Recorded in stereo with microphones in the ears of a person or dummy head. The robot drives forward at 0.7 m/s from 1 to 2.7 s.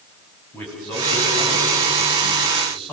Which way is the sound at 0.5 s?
5° left (ahead or behind).